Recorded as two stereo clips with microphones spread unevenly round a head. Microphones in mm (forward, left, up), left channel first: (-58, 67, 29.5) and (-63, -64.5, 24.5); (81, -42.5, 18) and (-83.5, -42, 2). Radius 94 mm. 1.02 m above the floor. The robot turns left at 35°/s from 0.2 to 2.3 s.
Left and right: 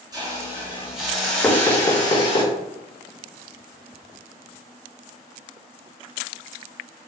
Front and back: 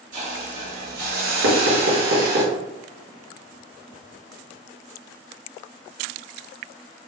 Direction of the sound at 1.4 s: 170° left.